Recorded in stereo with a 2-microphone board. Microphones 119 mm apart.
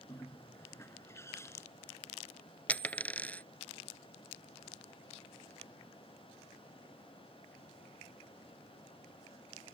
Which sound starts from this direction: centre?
A dropped coin, at 2.7 s.